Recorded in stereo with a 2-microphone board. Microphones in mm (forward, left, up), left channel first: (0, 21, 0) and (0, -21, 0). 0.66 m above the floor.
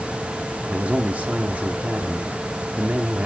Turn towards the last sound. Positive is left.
turn(degrees=-35)  # may be behind; listen again after turning